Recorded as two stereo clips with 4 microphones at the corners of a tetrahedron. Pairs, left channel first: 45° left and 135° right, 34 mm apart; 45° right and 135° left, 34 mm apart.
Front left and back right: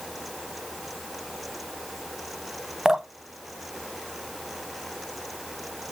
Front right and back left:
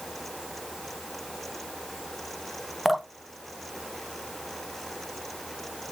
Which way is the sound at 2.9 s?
155° right.